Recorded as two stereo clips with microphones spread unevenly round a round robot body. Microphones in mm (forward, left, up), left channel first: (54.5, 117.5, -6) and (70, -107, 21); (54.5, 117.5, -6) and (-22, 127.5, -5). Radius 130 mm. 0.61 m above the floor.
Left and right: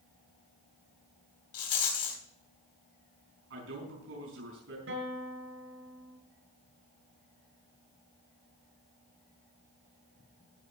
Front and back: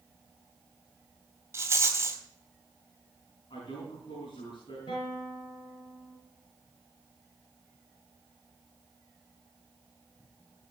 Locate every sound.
1.5 s a rattle: 115° left, 3 m
3.5 s a man speaking: 60° right, 5.5 m
4.9 s a guitar: 60° right, 6 m